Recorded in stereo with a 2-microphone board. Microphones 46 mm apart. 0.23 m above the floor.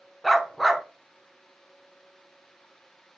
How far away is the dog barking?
About 0.6 m.